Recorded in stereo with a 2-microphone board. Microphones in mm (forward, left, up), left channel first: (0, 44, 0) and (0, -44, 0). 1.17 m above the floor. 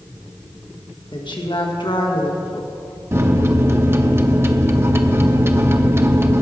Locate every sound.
1.1 s a woman speaking: 65° left (ahead or behind), 1.6 m
3.1 s a microwave: 30° right (ahead or behind), 0.7 m